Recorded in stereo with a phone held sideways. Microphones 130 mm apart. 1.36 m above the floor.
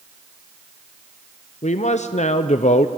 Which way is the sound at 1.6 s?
60° left (ahead or behind).